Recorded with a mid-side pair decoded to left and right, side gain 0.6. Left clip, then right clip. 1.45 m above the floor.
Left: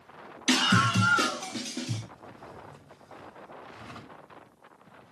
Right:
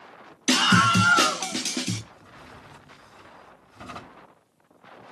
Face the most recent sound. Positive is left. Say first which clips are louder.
# left 1 dB
turn(degrees=-55)